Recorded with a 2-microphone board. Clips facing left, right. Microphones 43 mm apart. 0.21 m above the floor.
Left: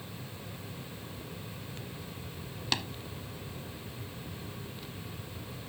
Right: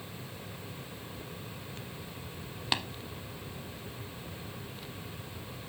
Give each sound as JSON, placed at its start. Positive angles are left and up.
{"t": 2.7, "sound": "tapping", "side_deg": -15, "distance_m": 0.8}